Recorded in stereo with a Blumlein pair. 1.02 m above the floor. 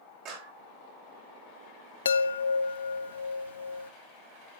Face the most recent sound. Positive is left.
turn(degrees=70)